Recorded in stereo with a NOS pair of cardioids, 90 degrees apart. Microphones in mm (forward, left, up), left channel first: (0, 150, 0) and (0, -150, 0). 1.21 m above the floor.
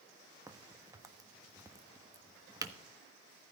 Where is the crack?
10° right, 1.2 m.